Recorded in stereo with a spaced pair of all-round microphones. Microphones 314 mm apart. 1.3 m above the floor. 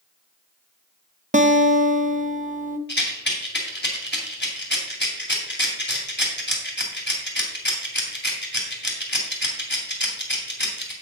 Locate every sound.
1.3 s a guitar: 25° right (ahead or behind), 0.7 m
2.9 s a rattle: 35° left (ahead or behind), 2.5 m